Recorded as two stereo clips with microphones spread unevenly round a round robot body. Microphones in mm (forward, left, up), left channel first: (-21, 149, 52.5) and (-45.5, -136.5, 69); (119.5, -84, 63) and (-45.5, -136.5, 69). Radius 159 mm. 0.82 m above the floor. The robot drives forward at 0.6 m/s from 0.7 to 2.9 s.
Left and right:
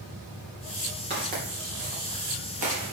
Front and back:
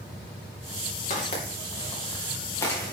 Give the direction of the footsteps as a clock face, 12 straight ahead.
1 o'clock.